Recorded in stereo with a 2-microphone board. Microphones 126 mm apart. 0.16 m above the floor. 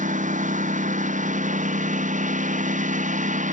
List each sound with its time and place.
0.0 s a lawn mower: 90° right